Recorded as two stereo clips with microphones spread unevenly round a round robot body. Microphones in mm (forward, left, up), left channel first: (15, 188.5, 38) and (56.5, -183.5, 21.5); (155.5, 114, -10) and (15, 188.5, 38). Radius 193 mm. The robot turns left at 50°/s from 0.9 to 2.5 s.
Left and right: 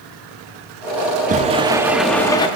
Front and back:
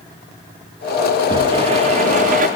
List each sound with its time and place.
1.3 s a sliding door: 130° right, 0.7 m; by 2.5 s 170° left, 0.7 m